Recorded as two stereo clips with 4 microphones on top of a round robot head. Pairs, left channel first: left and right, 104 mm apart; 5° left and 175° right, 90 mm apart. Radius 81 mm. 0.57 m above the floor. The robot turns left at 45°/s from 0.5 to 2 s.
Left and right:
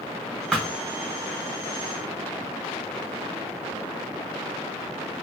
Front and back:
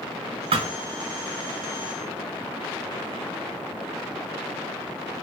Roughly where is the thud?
Behind.